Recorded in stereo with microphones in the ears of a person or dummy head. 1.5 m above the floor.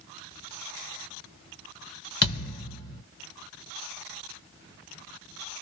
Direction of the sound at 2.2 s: 25° left (ahead or behind).